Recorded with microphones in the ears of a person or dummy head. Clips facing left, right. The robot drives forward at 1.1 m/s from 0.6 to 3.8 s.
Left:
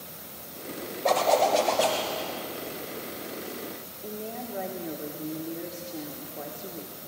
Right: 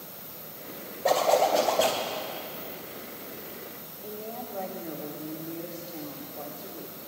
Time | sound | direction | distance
1.1 | a zipper | 5° right (ahead or behind) | 1.2 m
4.0 | a woman speaking | 15° left (ahead or behind) | 1.3 m